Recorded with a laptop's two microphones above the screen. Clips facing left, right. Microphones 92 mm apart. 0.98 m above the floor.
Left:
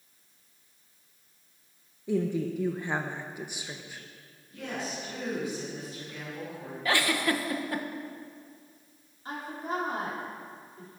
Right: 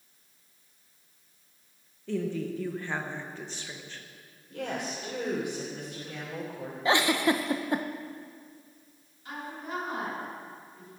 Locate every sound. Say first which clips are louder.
2.1 s a woman speaking: left 3 dB; 15° left (ahead or behind), 0.7 m; by 4.0 s 10° left (ahead or behind), 1.1 m
4.5 s a woman speaking: right 2 dB; 75° right (ahead or behind), 3.5 m
6.8 s a giggle: right 3 dB; 20° right (ahead or behind), 0.7 m
9.2 s a woman speaking: left 3 dB; 35° left (ahead or behind), 3 m